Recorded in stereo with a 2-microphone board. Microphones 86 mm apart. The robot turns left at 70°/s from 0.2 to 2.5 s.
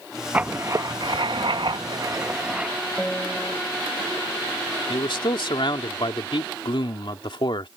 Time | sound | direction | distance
0.3 | writing | 15° right | ?
3.0 | a piano | 5° left (ahead or behind) | ?
4.9 | a man speaking | 70° left (ahead or behind) | ?